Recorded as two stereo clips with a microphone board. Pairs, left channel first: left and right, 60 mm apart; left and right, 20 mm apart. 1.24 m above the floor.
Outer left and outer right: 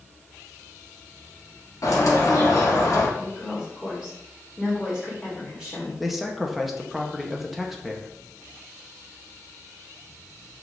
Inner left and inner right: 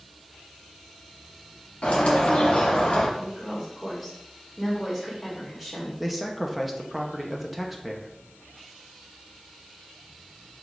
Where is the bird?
60° left (ahead or behind), 1.4 m.